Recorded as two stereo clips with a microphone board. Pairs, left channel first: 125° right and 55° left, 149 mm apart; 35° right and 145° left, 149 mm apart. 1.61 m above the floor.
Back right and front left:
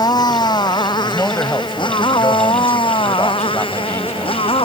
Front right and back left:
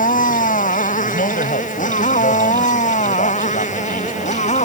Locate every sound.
0.0 s a motorcycle: 60° right; by 4.7 s 70° right
1.0 s a man speaking: 50° right